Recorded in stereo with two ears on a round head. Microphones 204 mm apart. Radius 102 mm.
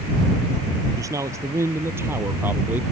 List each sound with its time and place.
1.0 s a man speaking: 15° right (ahead or behind); by 2.8 s 10° right (ahead or behind)